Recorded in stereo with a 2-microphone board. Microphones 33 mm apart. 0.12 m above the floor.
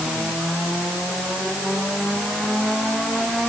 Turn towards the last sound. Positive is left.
No sound to turn to.